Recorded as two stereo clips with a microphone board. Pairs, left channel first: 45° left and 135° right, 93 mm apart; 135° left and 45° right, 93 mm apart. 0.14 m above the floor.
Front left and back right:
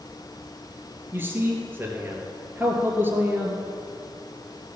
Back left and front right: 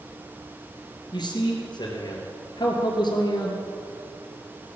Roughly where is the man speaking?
Behind.